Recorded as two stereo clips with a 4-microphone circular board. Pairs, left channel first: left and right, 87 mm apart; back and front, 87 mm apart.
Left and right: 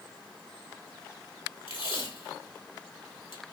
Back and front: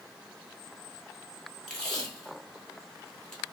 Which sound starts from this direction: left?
Tape being pulled, at 1.7 s.